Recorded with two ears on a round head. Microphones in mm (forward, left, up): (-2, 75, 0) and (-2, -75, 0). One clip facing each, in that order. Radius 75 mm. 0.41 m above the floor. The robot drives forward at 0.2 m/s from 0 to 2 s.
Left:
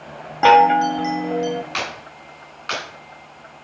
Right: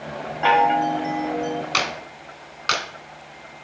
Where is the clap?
55° right (ahead or behind), 3 m.